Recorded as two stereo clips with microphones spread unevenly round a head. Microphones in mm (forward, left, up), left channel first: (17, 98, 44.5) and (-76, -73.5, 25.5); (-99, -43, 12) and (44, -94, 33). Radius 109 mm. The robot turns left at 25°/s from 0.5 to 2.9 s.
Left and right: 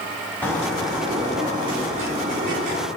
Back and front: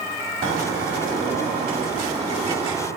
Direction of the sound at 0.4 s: 20° right.